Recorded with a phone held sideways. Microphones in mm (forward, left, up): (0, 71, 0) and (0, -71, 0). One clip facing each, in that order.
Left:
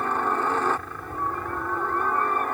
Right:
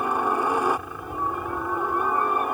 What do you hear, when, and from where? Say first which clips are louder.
0.0 s a helicopter: right 1 dB; 10° right (ahead or behind)